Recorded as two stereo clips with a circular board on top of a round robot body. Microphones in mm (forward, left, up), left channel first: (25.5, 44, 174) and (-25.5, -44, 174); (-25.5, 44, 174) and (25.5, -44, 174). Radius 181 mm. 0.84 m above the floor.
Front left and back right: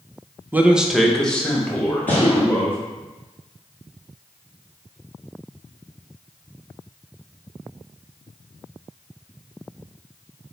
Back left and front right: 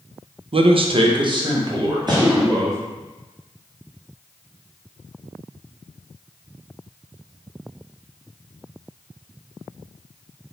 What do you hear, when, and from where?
0.5 s a man speaking: 50° right, 0.6 m; by 2.8 s 10° right, 1.8 m
2.1 s a gunshot: 30° left, 1.6 m